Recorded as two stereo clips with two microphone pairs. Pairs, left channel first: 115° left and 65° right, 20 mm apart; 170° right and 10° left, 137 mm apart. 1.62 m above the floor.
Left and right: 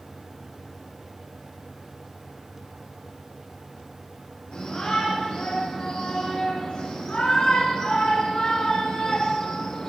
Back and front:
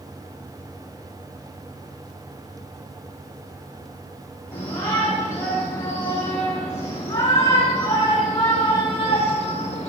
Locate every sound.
4.5 s a shout: 120° left, 5 m; by 9.9 s 155° left, 2.0 m